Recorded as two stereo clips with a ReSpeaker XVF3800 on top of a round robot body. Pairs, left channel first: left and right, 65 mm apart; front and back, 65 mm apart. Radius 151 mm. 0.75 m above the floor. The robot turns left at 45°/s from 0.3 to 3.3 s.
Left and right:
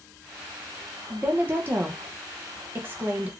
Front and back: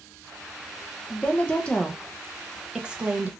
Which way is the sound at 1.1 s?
35° right.